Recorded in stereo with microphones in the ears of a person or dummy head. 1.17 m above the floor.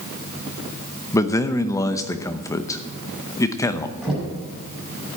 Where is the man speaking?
10° left (ahead or behind), 0.7 m.